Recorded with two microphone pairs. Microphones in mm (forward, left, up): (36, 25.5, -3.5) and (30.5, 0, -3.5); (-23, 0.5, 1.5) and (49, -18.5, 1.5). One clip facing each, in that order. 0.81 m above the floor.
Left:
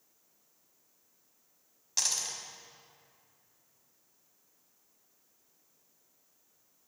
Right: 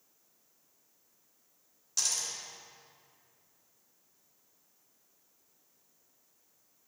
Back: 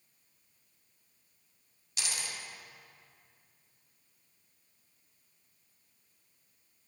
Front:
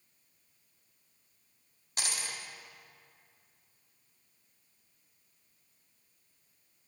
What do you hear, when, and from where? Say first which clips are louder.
2.0 s a dropped coin: left 1 dB, front 1 dB; 30° left, 1.4 m